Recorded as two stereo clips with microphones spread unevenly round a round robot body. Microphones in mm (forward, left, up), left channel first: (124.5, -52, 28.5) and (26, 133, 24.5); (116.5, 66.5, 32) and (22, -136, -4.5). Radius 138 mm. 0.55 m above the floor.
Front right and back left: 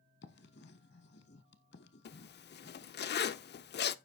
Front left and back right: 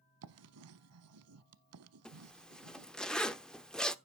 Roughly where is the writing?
Right.